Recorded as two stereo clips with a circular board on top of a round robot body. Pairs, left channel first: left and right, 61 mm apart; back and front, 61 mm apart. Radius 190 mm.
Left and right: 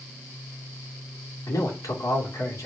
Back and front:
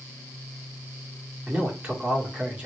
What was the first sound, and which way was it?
A man speaking, 70° left.